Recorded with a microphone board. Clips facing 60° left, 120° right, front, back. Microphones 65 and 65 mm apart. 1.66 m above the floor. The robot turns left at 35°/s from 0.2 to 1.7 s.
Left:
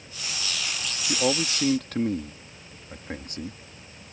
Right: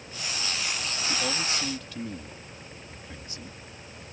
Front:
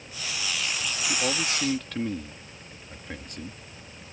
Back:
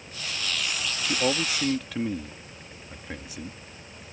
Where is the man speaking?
115° left; by 3.6 s 95° left.